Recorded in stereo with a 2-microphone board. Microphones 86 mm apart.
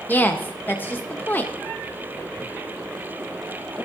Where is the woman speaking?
25° left (ahead or behind), 0.8 m.